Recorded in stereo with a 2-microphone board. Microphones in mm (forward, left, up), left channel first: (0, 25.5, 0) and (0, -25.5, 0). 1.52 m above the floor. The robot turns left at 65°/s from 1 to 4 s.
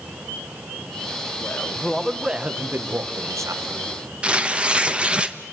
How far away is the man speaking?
About 1.6 m.